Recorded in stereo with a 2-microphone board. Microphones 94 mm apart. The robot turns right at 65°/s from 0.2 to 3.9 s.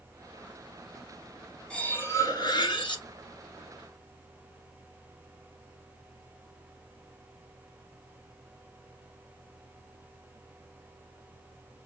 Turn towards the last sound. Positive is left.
turn(degrees=155)